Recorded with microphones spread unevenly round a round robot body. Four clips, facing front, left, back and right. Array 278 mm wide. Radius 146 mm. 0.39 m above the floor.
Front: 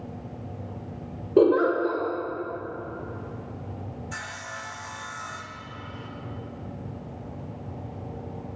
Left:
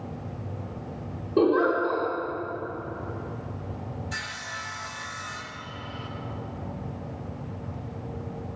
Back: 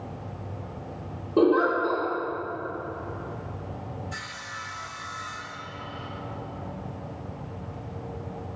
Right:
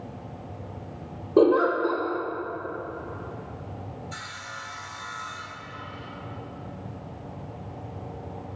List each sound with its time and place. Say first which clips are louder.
1.4 s a giggle: right 2 dB, front 2 dB; 40° right, 1.5 m
4.1 s sawing: left 2 dB, front 1 dB; 20° left, 0.5 m